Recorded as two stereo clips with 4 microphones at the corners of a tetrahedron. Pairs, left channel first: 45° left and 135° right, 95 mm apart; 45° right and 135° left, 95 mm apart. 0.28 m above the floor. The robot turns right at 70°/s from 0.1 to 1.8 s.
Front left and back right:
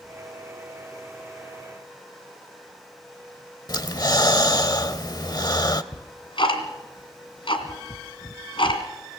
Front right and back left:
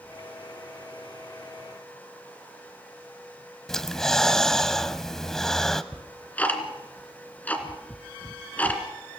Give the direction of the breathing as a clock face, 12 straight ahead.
11 o'clock.